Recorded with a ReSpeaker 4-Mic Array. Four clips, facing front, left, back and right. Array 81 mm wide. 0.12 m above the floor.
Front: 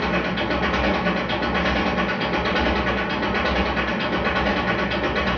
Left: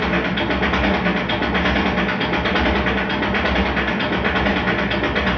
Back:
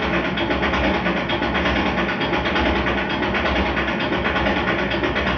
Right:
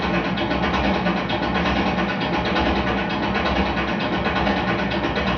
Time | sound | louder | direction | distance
0.0 | an engine running | left 2 dB, back 2 dB | 110° left | 0.8 m